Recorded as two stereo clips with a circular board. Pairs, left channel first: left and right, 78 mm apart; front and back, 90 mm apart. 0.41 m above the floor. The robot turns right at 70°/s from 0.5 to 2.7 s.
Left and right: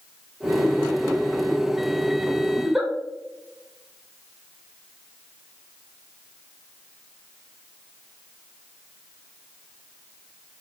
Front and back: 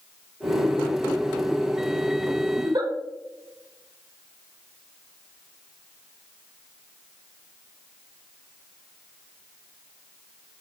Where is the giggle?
175° left, 0.5 m; by 2.9 s 175° right, 0.5 m.